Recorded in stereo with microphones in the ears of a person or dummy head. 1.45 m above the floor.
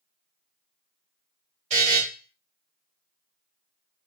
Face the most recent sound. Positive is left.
turn(degrees=-45)  # may be behind; listen again after turning